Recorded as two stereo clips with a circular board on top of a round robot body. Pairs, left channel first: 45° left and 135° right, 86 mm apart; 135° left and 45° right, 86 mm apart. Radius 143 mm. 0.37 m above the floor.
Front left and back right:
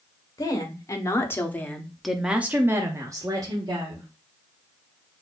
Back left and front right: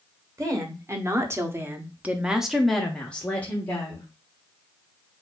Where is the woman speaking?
5° left, 1.6 m; by 4.1 s 160° right, 1.5 m.